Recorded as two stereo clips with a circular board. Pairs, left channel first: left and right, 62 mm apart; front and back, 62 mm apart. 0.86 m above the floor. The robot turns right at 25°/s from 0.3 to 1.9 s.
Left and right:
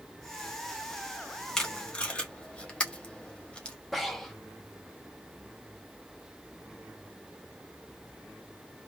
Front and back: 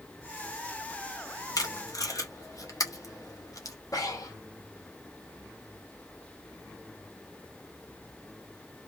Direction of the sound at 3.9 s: 5° left.